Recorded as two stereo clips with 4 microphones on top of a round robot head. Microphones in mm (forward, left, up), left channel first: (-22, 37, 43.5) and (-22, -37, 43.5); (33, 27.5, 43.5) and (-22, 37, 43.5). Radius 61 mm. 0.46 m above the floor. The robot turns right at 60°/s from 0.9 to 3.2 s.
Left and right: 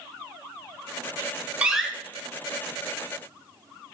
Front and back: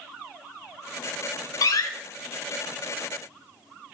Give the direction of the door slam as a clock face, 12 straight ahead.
12 o'clock.